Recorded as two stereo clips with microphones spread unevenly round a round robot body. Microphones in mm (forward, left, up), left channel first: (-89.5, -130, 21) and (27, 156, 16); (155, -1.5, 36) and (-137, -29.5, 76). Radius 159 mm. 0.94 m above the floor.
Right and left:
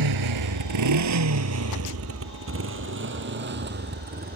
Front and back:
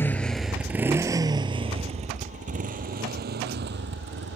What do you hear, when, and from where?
0.0 s a motorcycle: 90° left; by 4.4 s 130° left